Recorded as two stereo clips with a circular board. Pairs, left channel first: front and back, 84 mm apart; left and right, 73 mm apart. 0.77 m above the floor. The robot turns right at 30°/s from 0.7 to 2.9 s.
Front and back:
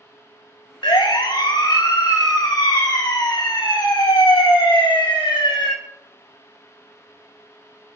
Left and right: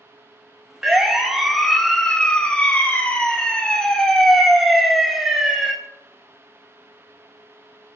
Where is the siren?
10° right, 3 m; by 5.7 s 5° right, 3.5 m.